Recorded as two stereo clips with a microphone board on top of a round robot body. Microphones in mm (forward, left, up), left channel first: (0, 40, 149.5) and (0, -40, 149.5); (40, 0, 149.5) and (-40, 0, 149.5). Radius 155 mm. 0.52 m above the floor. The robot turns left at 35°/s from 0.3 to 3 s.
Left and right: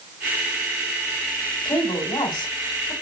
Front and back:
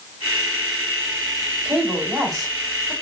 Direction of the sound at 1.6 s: 115° left.